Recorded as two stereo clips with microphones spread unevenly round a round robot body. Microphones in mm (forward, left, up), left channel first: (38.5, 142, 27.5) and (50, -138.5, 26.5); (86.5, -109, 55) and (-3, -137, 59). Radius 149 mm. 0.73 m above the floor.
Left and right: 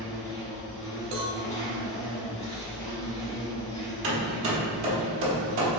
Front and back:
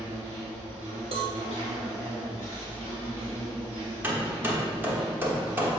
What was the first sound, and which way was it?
An insect, 175° left.